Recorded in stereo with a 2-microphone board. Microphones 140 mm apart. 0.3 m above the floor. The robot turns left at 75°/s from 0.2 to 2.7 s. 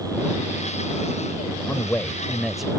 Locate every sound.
1.7 s a man speaking: 20° left (ahead or behind); by 2.7 s 5° right (ahead or behind)